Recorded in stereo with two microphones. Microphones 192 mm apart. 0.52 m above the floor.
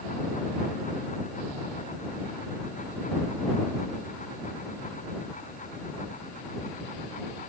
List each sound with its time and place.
Only background noise.